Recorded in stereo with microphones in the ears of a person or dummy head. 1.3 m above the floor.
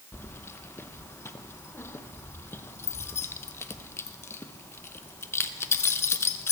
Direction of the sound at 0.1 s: 10° left (ahead or behind).